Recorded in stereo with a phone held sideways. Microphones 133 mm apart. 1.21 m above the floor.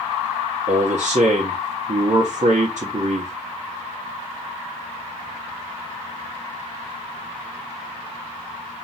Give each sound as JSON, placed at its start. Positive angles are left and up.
{"t": 0.7, "sound": "a man speaking", "side_deg": -60, "distance_m": 1.0}